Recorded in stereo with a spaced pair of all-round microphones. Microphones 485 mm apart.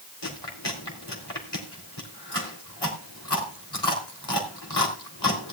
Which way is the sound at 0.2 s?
55° left (ahead or behind).